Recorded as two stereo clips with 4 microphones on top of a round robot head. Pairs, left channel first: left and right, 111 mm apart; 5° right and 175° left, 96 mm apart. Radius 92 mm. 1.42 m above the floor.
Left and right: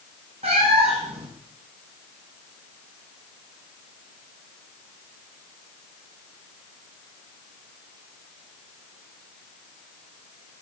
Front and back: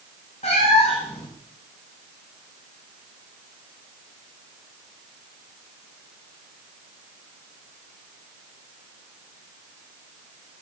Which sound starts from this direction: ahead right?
A cat meowing, at 0.4 s.